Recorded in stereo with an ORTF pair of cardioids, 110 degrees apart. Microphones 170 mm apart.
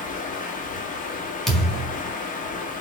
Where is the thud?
Straight ahead, 1.7 m.